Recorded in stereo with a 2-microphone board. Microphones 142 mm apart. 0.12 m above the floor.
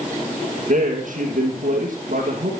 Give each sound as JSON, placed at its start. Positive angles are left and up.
{"t": 0.7, "sound": "a man speaking", "side_deg": -65, "distance_m": 3.5}